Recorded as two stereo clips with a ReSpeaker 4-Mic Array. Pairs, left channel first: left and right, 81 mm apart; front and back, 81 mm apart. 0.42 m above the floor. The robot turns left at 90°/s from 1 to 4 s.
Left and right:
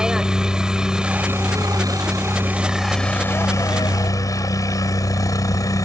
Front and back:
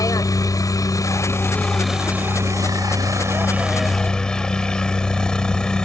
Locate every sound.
0.0 s a helicopter: 15° right; by 5.8 s 75° left